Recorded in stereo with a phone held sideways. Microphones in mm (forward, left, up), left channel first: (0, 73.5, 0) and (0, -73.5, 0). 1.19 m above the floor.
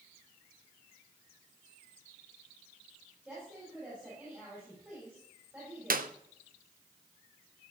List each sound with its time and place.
3.2 s a woman speaking: 15° right (ahead or behind), 4.5 m
5.9 s a clap: 75° right (ahead or behind), 0.5 m